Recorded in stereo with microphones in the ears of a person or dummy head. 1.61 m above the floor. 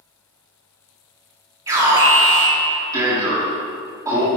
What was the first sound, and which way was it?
An alarm, 20° right (ahead or behind).